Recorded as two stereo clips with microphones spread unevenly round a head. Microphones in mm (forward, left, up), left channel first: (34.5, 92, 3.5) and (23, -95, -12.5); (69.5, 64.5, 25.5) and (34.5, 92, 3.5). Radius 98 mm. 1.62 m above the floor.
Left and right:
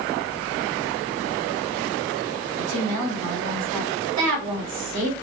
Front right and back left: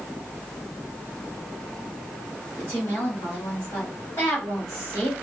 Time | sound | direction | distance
2.6 | a woman speaking | 100° right | 1.8 m